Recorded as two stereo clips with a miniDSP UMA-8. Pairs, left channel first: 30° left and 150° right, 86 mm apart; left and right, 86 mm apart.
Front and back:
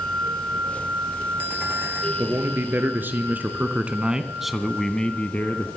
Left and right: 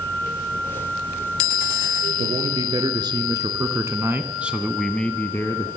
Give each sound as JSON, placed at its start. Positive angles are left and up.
{"t": 2.2, "sound": "a man speaking", "azimuth_deg": -90, "distance_m": 3.5}